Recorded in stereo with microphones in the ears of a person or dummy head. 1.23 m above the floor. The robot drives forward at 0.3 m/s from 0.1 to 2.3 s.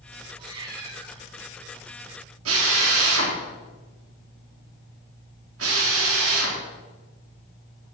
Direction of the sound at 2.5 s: 80° right.